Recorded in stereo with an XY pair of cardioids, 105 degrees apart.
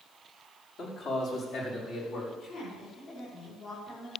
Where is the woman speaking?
65° left, 7.5 m.